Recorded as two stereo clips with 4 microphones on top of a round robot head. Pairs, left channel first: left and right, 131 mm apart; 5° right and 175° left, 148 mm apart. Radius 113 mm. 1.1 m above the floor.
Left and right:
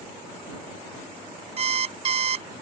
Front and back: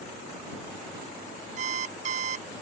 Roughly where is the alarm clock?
Behind right.